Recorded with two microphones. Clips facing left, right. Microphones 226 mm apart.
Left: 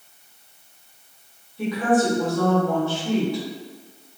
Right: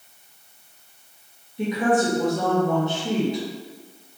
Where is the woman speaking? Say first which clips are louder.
Left 1 dB; 20° right (ahead or behind), 1.6 m.